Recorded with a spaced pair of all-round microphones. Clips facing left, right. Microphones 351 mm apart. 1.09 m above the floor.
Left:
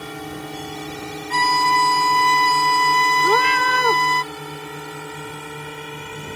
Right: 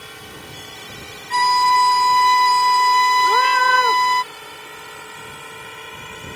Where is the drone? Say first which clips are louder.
Left 8 dB; 65° left (ahead or behind); by 6.3 s 55° left (ahead or behind).